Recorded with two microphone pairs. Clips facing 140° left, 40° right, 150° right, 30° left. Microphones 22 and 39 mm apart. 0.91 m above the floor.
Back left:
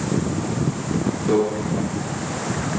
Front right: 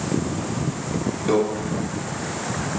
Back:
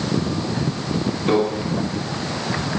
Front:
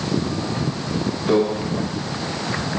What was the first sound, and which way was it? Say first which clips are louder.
A microwave: back left 1 dB, front 1 dB; 105° right.